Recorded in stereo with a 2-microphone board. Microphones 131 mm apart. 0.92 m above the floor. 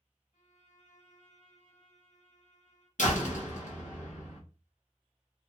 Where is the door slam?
70° left (ahead or behind), 0.8 m.